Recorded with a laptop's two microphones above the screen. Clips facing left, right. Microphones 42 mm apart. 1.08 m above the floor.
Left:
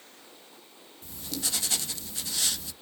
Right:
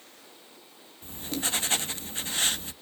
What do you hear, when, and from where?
1.0 s writing: 35° right (ahead or behind), 0.6 m